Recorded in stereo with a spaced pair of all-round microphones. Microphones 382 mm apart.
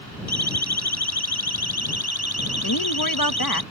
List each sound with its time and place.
0.3 s a siren: 85° left; by 3.6 s 75° left (ahead or behind)
2.6 s a woman speaking: 60° left (ahead or behind)